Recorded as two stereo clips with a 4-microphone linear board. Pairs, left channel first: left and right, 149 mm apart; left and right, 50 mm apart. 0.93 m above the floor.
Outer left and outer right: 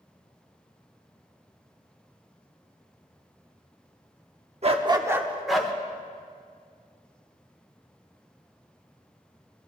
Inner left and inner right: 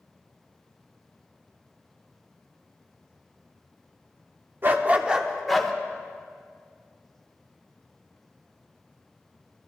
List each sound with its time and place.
4.6 s a dog barking: 45° right (ahead or behind), 0.9 m; by 5.7 s 5° left (ahead or behind), 1.3 m